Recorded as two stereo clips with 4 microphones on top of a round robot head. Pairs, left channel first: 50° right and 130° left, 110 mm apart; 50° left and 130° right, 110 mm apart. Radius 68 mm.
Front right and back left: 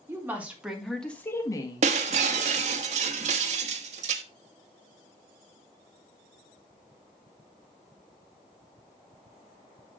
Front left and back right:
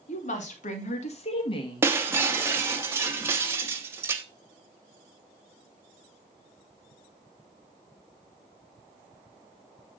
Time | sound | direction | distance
0.1 | a woman speaking | 60° left | 2.5 m
1.8 | breaking glass | 160° left | 0.9 m